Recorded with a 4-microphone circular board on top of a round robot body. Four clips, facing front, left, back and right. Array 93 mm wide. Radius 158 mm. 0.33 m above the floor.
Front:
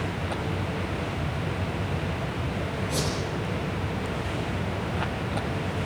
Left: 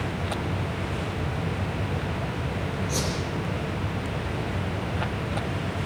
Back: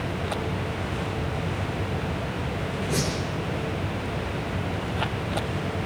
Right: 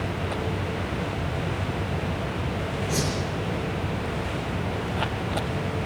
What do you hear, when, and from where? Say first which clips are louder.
2.9 s a whoosh: right 3 dB, back 3 dB; 150° right, 7 m